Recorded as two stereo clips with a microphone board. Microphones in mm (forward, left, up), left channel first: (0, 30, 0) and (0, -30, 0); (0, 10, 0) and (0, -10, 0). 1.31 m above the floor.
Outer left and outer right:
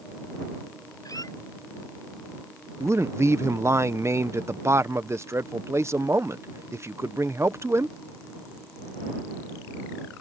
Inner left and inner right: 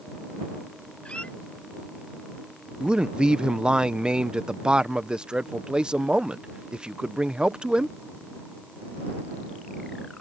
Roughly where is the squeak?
Left.